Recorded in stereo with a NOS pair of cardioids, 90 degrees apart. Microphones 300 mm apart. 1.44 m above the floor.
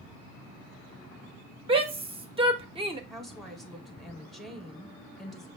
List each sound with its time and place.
1.7 s a shout: 20° right, 0.8 m
3.1 s a woman speaking: straight ahead, 1.1 m